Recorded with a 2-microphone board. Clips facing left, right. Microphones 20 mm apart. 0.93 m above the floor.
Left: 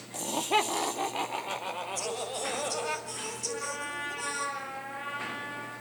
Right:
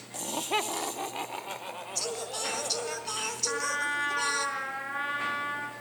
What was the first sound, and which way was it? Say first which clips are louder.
Laughter: left 3 dB; centre (ahead or behind).